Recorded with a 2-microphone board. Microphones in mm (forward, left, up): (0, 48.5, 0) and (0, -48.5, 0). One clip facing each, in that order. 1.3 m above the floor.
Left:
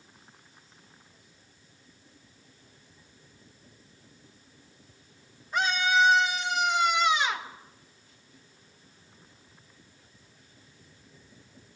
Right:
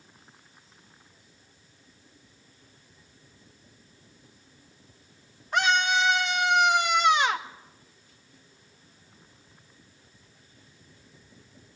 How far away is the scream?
About 1.6 m.